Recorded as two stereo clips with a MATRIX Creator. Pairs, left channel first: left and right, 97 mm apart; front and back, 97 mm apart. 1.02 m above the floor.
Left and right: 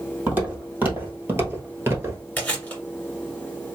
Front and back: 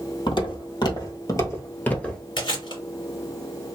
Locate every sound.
0.3 s footsteps: 20° right, 2.0 m; by 2.2 s 75° right, 1.1 m
2.4 s chewing: 20° left, 1.8 m